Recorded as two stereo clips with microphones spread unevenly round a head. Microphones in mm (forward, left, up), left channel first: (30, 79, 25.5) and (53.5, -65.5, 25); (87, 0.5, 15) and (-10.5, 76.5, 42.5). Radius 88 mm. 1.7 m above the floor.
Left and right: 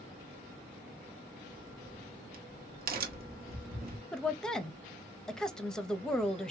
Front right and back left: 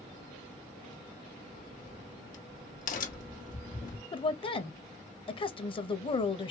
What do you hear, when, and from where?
1.5 s a crack: 60° right, 1.1 m
4.1 s a woman speaking: 15° left, 0.8 m